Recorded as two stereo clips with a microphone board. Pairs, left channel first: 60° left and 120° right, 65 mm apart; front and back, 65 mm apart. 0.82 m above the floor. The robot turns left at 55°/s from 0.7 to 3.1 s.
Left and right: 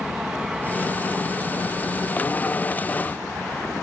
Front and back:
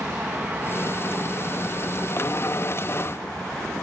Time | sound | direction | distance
0.0 | an aircraft | 175° left | ?